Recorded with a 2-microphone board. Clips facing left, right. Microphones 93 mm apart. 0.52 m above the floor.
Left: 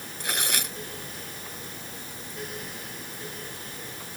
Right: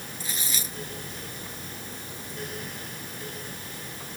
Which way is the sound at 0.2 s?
65° left (ahead or behind).